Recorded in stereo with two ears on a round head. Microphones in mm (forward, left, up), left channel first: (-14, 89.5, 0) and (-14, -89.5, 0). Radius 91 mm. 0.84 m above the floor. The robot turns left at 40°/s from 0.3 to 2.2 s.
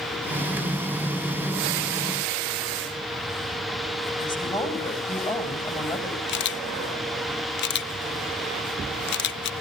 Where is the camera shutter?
55° left (ahead or behind), 0.7 m.